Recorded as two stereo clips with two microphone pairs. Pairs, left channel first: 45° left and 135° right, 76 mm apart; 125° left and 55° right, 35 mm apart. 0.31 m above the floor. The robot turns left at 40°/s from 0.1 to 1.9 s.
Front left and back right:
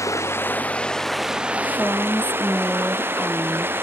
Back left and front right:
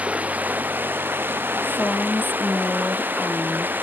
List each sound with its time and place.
0.0 s running water: 5° right; by 3.9 s 75° right
1.6 s a woman speaking: 120° left; by 3.8 s 110° left